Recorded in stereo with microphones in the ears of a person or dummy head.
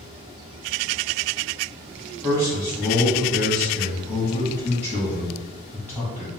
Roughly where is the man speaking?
Centre.